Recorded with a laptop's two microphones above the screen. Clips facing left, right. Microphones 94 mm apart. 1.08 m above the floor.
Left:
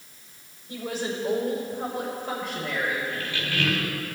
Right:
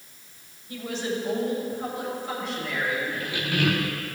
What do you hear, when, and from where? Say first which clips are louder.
0.7 s a woman speaking: right 1 dB; 40° left (ahead or behind), 4.5 m; by 3.0 s 60° left (ahead or behind), 4.5 m
3.1 s a squeak: right 2 dB; 15° right (ahead or behind), 1.1 m